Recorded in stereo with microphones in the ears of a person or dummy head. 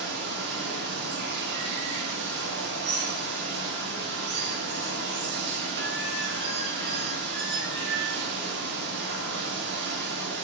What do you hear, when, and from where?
0.0 s running water: 60° right (ahead or behind), 0.8 m